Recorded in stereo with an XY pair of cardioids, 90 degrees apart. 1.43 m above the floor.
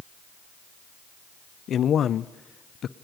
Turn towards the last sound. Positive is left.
turn(degrees=65)